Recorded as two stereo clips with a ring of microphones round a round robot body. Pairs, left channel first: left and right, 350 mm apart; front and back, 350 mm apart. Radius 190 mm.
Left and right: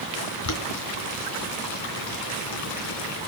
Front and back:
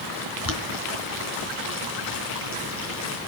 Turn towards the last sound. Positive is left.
turn(degrees=50)